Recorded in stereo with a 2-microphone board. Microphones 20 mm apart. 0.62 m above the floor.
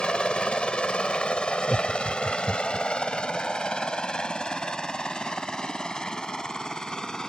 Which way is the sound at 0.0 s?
60° left (ahead or behind).